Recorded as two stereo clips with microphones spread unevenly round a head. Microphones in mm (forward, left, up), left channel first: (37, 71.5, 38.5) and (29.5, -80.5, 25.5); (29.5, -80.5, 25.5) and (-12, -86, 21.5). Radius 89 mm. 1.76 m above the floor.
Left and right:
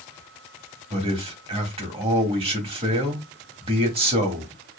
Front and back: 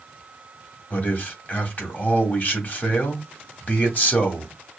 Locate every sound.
0.9 s a man speaking: 40° right, 1.7 m